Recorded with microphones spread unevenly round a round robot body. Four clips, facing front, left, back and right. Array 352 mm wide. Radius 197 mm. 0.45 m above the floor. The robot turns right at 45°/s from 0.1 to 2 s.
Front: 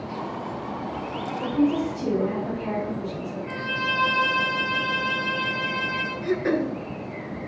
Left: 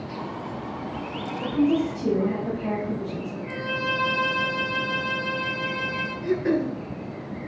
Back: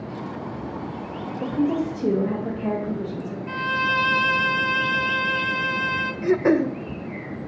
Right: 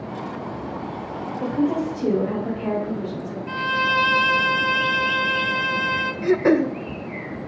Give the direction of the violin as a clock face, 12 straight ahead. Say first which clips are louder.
Right 7 dB, back 6 dB; 4 o'clock.